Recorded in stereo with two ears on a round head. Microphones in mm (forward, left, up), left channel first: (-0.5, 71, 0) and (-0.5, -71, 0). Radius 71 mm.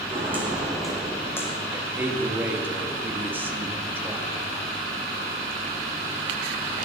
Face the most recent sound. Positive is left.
turn(degrees=-15)  # may be behind; listen again after turning